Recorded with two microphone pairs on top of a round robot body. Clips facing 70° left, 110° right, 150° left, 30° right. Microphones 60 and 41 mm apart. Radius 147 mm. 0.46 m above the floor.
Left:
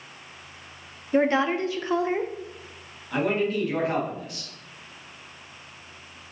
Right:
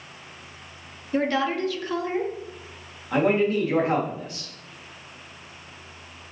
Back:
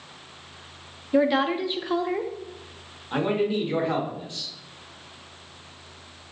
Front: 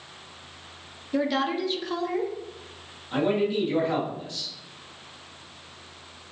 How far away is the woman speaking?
About 0.7 m.